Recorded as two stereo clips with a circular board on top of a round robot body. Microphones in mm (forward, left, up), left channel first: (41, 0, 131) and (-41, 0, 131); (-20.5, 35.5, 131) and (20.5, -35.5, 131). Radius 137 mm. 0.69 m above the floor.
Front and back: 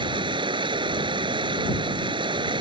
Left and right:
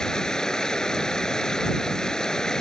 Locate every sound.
0.0 s running water: 160° right